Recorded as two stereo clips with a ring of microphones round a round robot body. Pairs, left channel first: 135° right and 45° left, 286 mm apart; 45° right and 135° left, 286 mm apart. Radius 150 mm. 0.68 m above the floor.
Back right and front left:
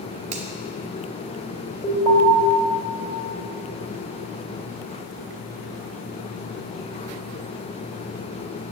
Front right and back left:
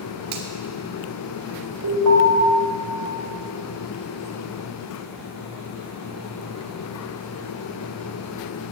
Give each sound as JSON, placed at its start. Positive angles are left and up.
{"t": 0.3, "sound": "a finger snap", "azimuth_deg": 110, "distance_m": 1.8}
{"t": 1.8, "sound": "an alarm", "azimuth_deg": 155, "distance_m": 3.5}